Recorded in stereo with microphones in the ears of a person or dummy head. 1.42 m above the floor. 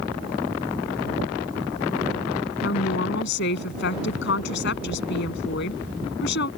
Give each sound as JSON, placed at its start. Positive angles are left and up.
{"t": 2.6, "sound": "a woman speaking", "side_deg": 60}